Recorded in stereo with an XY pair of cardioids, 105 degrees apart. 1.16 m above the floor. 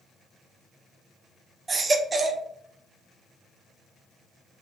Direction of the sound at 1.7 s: 35° right.